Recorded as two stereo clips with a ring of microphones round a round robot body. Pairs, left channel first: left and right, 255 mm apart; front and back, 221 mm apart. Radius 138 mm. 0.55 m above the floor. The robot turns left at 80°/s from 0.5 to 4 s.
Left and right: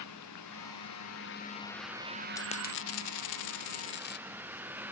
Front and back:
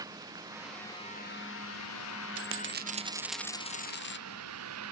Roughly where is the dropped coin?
Behind.